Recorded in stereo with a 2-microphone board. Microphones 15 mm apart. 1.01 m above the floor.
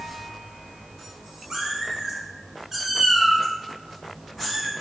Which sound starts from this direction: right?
A cat meowing, at 1.5 s.